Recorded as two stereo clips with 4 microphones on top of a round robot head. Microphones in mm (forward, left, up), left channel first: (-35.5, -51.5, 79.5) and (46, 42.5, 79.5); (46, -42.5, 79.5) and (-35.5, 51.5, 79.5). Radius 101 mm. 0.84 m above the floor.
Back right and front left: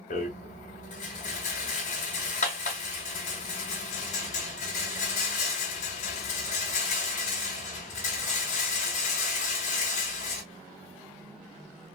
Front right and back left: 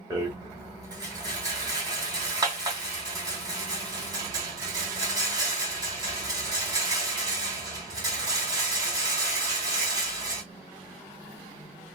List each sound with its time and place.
0.1 s a rattle: 165° right, 1.8 m